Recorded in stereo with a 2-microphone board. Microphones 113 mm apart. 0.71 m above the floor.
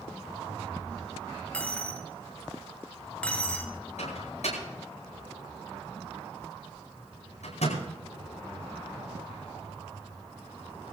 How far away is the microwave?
About 9.5 m.